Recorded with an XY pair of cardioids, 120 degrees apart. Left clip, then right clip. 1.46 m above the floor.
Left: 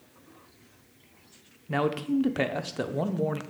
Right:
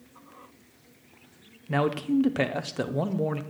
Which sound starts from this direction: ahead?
A man speaking, at 1.7 s.